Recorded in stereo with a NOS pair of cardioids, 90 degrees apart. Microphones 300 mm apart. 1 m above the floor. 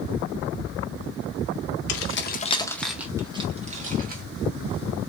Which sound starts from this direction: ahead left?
Keys jangling, at 1.9 s.